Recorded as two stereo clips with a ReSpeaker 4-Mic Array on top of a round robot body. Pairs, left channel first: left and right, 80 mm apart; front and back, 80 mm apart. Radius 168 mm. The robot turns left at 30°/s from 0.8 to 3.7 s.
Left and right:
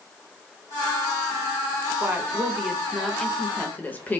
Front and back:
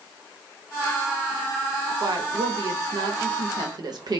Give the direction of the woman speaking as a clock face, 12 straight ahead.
5 o'clock.